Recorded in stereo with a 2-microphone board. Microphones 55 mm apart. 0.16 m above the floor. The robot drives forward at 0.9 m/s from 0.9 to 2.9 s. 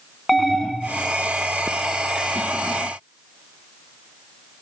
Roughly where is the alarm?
Centre.